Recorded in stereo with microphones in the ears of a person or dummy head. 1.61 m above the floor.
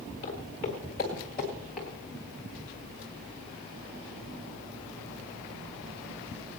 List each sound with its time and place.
0.2 s footsteps: 35° left (ahead or behind), 1.9 m; by 1.9 s 5° left (ahead or behind), 1.6 m